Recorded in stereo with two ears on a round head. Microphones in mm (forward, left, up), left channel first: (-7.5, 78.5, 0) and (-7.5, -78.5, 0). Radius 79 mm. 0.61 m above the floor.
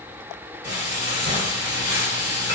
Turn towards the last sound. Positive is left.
turn(degrees=-20)  # may be behind; listen again after turning